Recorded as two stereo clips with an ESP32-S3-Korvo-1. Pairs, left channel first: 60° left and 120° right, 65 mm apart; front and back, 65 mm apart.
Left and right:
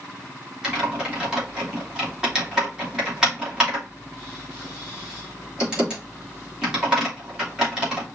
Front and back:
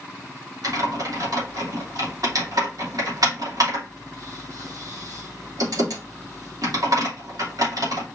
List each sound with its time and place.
0.6 s typing on a keyboard: 160° left, 3 m